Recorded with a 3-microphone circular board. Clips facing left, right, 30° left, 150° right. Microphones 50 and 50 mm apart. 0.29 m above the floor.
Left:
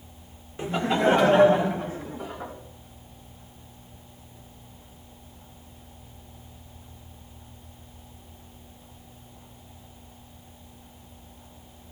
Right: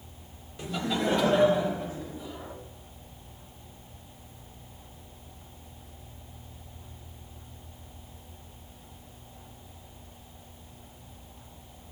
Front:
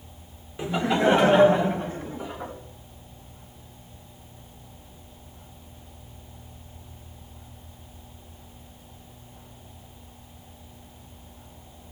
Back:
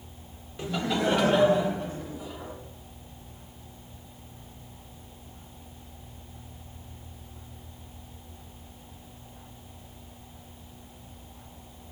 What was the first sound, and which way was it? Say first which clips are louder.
Laughter: left 6 dB, front 5 dB; 80° left.